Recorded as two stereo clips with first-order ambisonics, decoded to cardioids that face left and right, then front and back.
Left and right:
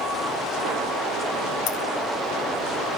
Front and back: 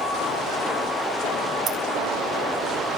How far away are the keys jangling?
About 3 m.